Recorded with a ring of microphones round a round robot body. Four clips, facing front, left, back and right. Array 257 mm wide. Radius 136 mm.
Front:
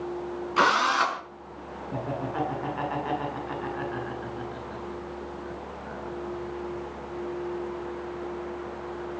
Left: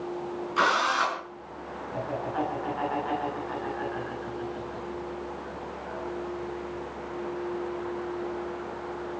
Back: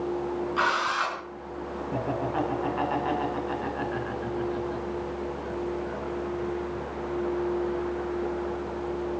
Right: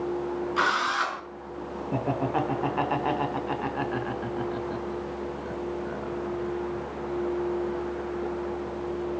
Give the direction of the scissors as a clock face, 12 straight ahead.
I don't hear scissors.